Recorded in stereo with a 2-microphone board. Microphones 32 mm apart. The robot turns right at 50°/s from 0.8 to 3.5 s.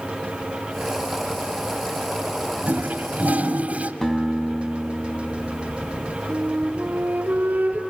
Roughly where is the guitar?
Centre.